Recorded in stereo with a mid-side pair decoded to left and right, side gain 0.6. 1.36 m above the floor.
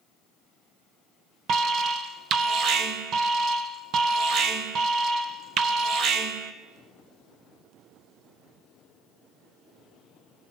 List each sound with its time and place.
1.5 s an alarm: 55° right, 1.6 m